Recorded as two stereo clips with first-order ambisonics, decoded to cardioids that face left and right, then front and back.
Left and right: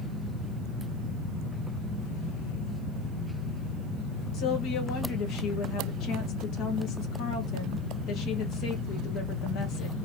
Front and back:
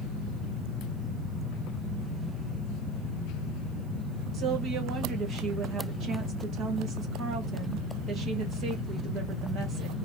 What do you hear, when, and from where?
4.3 s a woman speaking: 130° left, 1.2 m